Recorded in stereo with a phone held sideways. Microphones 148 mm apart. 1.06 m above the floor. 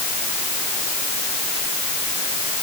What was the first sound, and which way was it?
Only background noise.